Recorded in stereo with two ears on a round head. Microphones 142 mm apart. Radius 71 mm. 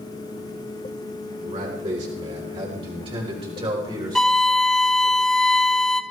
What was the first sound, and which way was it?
A man speaking, 50° right (ahead or behind).